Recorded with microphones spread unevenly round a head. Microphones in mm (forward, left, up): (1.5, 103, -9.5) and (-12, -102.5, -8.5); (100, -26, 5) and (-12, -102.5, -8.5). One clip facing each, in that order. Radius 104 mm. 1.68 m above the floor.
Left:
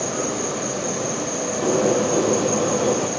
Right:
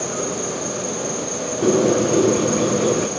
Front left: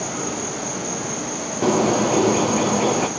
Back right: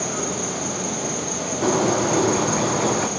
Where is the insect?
160° right, 9 m.